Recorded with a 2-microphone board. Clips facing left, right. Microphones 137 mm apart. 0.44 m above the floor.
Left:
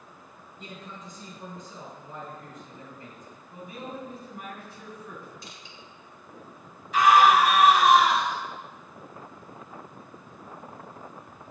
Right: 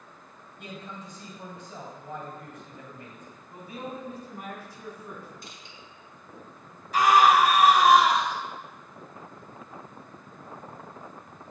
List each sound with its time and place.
0.6 s a man speaking: 70° right (ahead or behind), 3 m
3.5 s a man speaking: 35° right (ahead or behind), 3.5 m
5.4 s crushing: 50° right (ahead or behind), 1.7 m
6.9 s a scream: 40° right (ahead or behind), 2.5 m